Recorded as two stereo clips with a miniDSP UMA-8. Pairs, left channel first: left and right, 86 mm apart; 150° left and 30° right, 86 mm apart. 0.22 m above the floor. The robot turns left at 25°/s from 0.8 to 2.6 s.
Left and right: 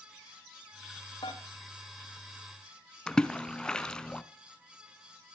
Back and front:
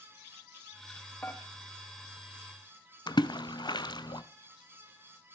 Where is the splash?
170° left, 0.8 m.